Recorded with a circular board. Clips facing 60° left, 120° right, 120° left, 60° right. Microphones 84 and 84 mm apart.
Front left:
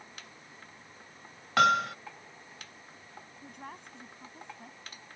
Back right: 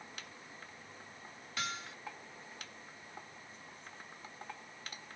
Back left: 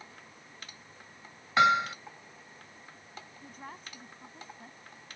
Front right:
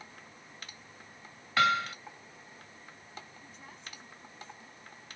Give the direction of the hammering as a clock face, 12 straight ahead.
10 o'clock.